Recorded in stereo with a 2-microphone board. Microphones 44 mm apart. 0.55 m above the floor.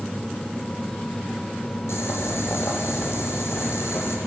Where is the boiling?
80° left, 5 m.